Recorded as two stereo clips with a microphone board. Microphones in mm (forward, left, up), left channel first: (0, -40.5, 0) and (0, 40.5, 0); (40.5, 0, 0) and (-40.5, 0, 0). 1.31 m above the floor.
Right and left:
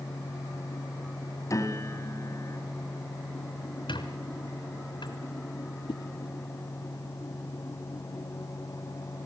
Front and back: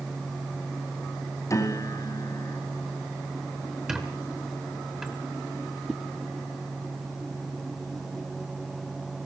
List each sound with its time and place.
1.5 s a piano: 45° right, 2.5 m
3.9 s a squeak: 100° right, 3.5 m
5.9 s a whoosh: 100° right, 1.3 m